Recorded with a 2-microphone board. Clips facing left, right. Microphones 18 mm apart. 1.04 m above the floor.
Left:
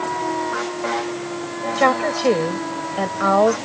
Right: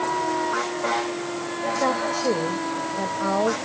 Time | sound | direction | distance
1.8 | a woman speaking | 85° left | ?